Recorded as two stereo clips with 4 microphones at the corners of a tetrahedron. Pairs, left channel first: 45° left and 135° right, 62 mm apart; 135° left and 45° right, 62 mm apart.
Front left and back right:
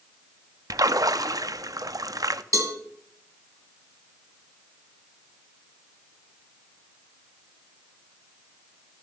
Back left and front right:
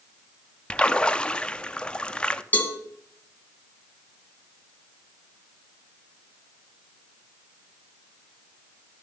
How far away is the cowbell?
About 2.5 m.